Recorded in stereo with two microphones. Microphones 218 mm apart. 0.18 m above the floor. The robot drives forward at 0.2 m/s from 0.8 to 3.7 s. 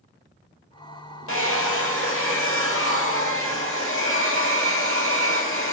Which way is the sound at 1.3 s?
80° left.